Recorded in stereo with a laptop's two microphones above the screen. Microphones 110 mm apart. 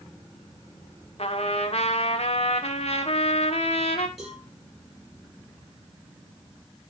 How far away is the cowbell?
About 6.5 m.